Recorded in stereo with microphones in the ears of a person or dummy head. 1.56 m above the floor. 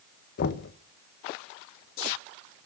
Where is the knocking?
55° left (ahead or behind), 1.6 m.